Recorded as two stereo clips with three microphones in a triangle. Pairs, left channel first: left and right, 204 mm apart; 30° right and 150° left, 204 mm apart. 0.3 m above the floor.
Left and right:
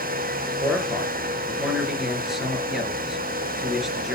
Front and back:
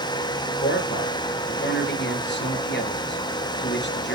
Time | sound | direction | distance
0.5 | a man speaking | straight ahead | 5.5 m